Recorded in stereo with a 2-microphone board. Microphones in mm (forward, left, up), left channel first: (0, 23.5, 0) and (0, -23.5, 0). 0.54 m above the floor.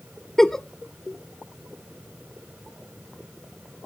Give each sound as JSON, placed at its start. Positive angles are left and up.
{"t": 0.4, "sound": "a giggle", "side_deg": 5, "distance_m": 0.5}